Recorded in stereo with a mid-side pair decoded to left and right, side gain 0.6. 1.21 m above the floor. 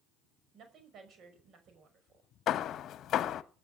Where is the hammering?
50° left, 1.2 m.